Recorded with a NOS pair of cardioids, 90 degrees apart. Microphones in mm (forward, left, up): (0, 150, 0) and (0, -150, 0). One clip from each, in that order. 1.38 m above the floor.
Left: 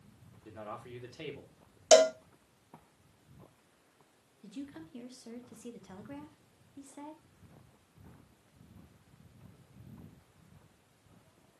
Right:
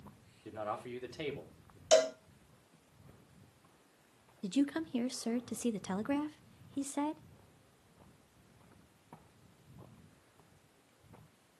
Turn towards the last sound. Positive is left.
turn(degrees=-55)